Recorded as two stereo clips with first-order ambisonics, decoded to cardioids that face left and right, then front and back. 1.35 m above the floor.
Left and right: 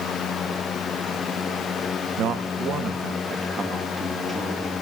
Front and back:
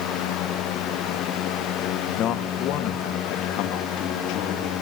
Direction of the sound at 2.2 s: 50° right.